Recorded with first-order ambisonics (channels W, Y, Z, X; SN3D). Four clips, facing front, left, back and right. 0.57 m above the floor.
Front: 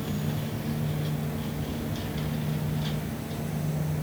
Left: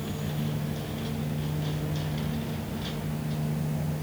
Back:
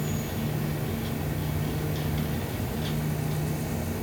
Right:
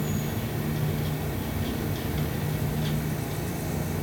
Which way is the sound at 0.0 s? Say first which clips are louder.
Right 2 dB, back 1 dB; 100° right.